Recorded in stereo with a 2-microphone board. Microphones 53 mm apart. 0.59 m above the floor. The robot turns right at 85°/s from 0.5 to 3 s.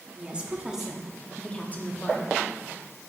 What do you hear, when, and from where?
0.1 s a woman speaking: 40° right, 0.8 m; by 2.3 s 110° left, 0.8 m